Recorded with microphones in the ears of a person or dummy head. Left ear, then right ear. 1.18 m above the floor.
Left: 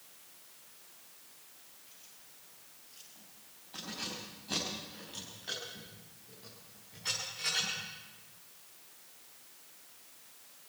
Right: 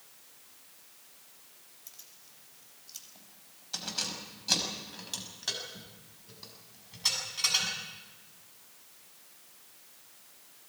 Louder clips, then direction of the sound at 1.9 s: Right 7 dB; 85° right.